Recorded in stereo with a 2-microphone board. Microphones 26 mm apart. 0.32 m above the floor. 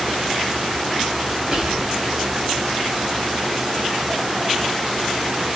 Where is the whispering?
35° right (ahead or behind), 1.7 m.